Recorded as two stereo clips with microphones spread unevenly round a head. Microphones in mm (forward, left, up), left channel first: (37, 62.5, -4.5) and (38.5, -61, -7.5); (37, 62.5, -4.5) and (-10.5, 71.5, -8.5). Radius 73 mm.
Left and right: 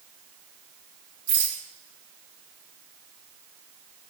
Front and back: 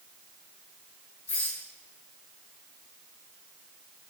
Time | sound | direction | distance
1.3 | a rattle | 70° right | 4 m